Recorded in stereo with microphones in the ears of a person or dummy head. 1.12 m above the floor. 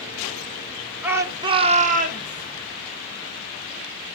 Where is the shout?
15° right (ahead or behind), 1.3 m; by 2.5 s 40° right (ahead or behind), 1.2 m.